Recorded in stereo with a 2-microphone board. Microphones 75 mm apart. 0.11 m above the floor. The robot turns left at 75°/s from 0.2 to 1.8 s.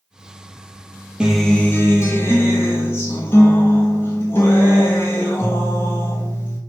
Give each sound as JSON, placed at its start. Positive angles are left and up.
{"t": 1.2, "sound": "a guitar", "azimuth_deg": -170, "distance_m": 0.6}